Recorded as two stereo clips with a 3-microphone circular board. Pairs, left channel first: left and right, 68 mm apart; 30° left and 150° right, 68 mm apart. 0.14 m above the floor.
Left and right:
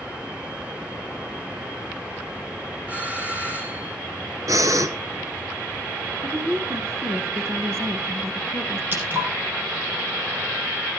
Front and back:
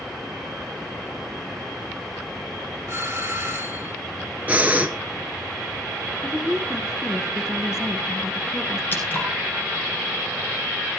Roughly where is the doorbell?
Behind right.